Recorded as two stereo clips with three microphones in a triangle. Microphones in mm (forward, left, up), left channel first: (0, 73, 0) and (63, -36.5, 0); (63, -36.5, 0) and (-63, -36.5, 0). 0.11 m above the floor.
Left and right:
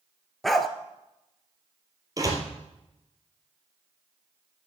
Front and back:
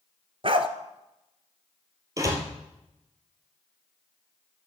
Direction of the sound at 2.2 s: 120° right.